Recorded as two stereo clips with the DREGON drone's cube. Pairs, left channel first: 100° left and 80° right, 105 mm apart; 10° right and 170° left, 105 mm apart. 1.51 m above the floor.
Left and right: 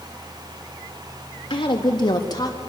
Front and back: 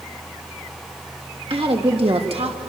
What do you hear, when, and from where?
1.5 s a woman speaking: 140° left, 3 m; by 2.6 s 155° left, 2.5 m